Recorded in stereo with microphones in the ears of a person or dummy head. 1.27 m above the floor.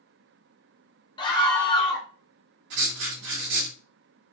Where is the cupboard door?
I don't hear a cupboard door.